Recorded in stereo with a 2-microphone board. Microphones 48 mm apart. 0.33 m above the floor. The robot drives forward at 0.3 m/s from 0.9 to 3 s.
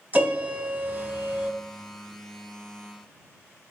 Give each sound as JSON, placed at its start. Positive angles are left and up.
{"t": 0.1, "sound": "a piano", "side_deg": -30, "distance_m": 0.7}